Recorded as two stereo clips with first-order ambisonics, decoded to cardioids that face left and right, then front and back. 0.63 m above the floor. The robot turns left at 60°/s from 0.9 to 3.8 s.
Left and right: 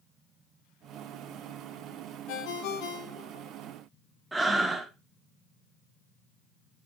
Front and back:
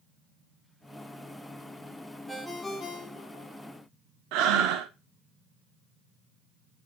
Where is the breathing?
170° right, 0.6 m.